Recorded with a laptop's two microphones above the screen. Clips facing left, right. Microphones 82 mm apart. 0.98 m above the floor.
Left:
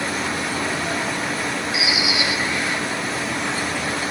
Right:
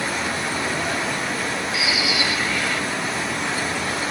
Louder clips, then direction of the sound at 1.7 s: Even; 20° left (ahead or behind).